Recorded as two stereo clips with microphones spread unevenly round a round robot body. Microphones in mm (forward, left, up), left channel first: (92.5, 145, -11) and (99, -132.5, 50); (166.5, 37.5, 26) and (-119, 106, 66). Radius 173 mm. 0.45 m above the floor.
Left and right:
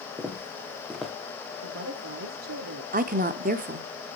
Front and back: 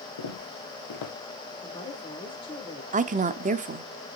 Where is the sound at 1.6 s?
75° right, 1.7 m.